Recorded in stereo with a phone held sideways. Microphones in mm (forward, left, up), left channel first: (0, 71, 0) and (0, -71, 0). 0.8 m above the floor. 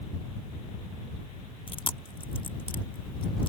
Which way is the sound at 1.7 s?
35° left (ahead or behind).